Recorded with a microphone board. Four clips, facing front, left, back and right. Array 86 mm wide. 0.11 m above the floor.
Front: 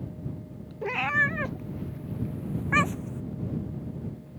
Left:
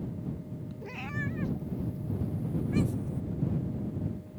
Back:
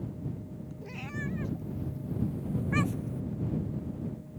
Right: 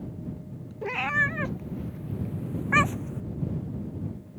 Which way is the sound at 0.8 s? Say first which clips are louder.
Right 11 dB, front 13 dB; 35° right.